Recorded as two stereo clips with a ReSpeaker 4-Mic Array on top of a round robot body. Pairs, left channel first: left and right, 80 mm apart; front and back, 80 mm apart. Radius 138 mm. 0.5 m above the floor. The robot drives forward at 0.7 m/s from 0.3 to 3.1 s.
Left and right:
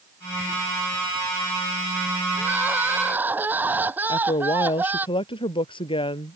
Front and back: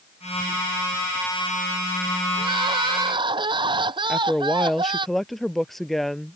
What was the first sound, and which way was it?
Crying, 155° right.